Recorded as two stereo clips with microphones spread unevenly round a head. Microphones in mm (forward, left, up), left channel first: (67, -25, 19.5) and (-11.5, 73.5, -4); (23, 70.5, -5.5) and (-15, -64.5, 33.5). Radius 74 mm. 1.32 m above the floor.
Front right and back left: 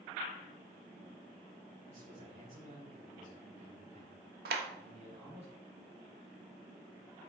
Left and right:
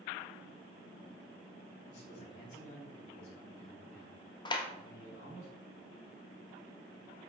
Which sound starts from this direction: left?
A man speaking, at 1.9 s.